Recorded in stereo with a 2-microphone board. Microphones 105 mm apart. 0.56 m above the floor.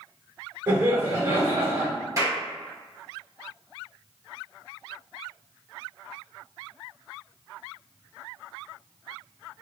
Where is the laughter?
35° right (ahead or behind), 1.8 m.